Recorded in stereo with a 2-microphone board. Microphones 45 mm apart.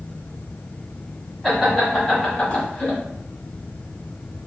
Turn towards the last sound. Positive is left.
turn(degrees=35)  # may be behind; listen again after turning